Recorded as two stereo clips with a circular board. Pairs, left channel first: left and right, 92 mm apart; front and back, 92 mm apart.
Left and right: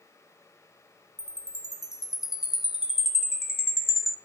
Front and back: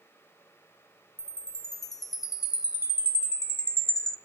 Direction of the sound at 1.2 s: 5° right.